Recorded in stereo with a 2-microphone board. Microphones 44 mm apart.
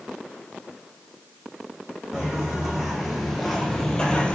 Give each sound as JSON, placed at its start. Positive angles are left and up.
{"t": 2.1, "sound": "footsteps", "side_deg": -10, "distance_m": 1.4}